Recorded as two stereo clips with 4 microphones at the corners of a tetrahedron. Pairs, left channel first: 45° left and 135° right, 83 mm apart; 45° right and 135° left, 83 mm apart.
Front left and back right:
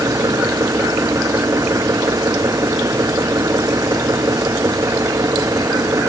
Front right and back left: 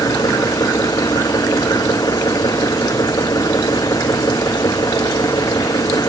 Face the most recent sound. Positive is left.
turn(degrees=-85)